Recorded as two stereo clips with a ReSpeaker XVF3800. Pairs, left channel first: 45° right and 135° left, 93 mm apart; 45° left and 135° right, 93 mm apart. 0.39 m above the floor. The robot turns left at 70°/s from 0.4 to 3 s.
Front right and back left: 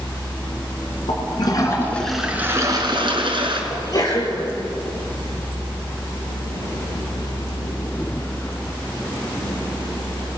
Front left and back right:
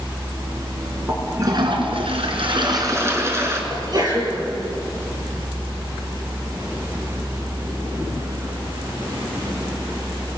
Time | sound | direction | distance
1.1 | a toilet flushing | 60° right | 3 m
3.7 | a sneeze | 90° right | 7.5 m